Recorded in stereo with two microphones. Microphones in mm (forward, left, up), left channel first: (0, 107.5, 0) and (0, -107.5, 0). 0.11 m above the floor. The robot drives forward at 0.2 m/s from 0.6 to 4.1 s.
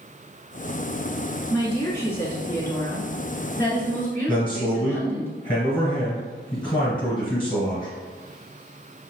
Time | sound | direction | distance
1.5 | a woman speaking | 10° left (ahead or behind) | 1.3 m
4.3 | a man speaking | 25° left (ahead or behind) | 1.8 m